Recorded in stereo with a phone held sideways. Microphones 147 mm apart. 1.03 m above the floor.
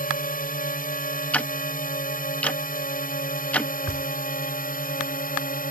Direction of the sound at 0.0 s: 70° left (ahead or behind).